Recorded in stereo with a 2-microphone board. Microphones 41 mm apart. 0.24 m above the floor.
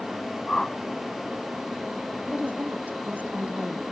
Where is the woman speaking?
35° right (ahead or behind).